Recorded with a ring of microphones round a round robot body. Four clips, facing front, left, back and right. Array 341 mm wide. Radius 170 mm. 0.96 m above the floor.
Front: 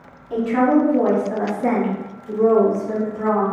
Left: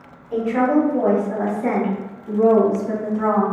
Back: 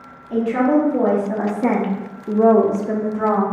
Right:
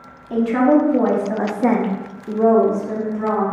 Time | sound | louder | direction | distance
0.3 | a woman speaking | right 3 dB, even | 85° right | 1.9 m